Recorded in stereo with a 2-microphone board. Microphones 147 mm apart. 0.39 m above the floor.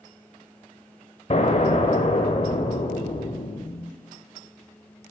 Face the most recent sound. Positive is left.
turn(degrees=50)  # may be behind; listen again after turning